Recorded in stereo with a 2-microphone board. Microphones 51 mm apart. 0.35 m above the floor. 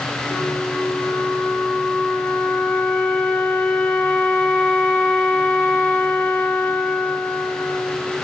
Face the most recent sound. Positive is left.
turn(degrees=25)  # may be behind; listen again after turning